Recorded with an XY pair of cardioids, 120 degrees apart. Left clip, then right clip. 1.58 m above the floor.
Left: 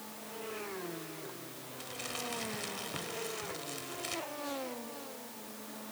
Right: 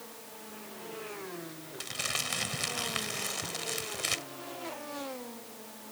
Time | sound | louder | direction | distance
1.8 | crumpling | right 7 dB | 50° right | ?